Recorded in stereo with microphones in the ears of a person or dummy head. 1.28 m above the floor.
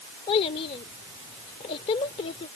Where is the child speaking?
30° left (ahead or behind).